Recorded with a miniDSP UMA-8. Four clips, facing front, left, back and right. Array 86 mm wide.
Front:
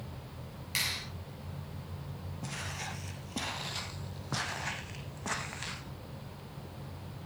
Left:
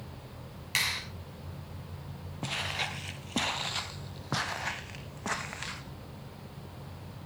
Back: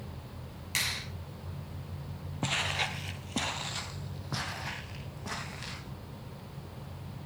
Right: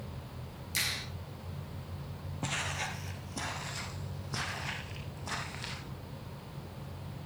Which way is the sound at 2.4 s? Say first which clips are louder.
Left 1 dB, back 9 dB; 175° left.